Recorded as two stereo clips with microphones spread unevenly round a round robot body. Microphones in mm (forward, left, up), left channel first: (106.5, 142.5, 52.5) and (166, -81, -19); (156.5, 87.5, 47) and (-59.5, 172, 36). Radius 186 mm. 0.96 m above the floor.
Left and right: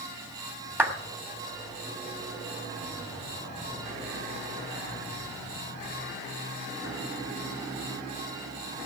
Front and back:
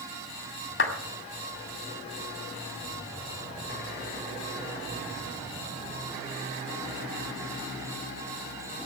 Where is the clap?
5° left, 2 m.